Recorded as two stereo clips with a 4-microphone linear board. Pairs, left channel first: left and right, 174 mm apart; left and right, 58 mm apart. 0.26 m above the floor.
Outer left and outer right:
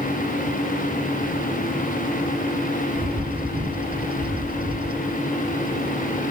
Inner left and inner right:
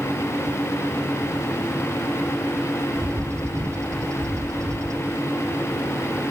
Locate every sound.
3.0 s a bird: 60° right (ahead or behind)